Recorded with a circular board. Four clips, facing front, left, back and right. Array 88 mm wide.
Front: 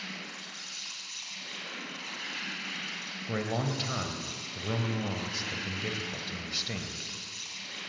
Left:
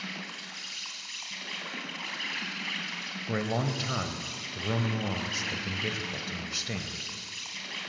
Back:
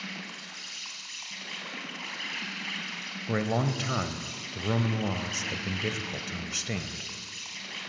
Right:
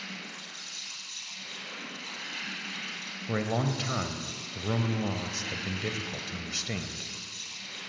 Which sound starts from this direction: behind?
A man speaking, at 3.3 s.